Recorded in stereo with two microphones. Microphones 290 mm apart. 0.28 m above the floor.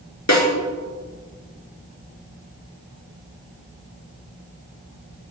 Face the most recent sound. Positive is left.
turn(degrees=65)  # may be behind; listen again after turning